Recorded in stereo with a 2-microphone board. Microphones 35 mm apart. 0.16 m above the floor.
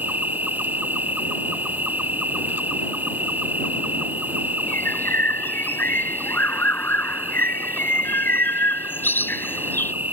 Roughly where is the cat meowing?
I don't hear a cat meowing.